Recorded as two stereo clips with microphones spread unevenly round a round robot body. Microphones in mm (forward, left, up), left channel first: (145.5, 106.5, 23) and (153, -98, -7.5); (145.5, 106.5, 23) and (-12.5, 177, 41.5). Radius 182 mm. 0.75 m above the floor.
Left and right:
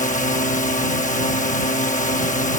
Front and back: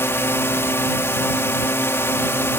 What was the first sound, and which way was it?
A drone, 45° left.